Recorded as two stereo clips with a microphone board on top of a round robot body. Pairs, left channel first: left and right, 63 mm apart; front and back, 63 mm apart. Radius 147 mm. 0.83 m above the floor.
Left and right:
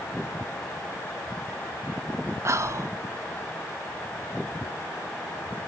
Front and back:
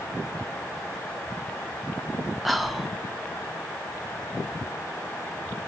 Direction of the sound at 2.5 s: 95° right.